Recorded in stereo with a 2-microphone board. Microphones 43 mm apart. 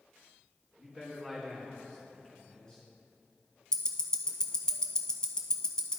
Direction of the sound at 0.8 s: Centre (ahead or behind).